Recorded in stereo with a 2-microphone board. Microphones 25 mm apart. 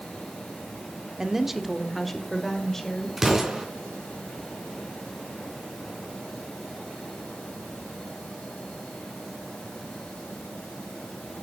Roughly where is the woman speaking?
Right.